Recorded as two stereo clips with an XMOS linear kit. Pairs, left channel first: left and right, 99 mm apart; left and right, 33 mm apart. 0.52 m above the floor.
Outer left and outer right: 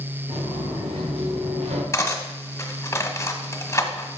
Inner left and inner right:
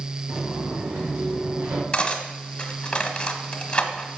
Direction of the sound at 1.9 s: 25° left (ahead or behind).